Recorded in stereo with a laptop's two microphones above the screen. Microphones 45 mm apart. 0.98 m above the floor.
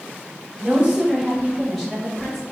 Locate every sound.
0.6 s a woman speaking: 25° right (ahead or behind), 1.3 m; by 2.4 s 10° left (ahead or behind), 1.7 m